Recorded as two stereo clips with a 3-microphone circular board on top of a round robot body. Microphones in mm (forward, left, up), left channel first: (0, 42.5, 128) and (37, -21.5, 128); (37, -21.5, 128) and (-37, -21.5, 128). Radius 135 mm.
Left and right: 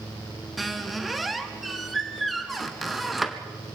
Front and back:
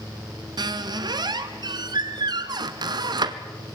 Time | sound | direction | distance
0.6 | a squeak | 150° right | 1.2 m